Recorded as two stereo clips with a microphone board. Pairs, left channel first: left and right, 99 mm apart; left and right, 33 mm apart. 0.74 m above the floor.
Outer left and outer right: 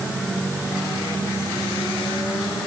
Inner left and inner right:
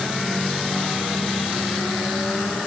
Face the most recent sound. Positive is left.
No sound to turn to.